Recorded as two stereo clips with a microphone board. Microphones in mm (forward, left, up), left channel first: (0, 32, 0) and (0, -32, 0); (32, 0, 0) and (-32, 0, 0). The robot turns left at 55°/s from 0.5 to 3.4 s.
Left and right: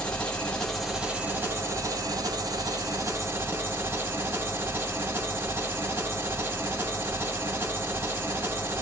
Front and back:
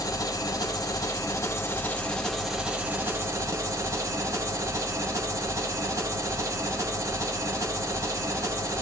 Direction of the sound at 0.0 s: 15° left.